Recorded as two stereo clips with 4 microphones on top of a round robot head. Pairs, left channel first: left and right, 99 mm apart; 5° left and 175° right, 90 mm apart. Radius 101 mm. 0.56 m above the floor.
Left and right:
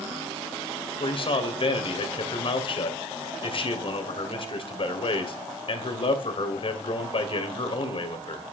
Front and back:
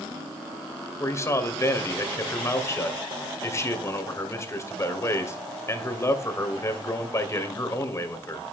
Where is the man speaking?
65° left, 2.5 m.